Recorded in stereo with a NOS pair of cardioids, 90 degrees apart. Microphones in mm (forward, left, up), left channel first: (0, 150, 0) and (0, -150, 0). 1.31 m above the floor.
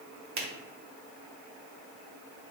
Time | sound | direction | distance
0.4 | a finger snap | 60° right | 1.0 m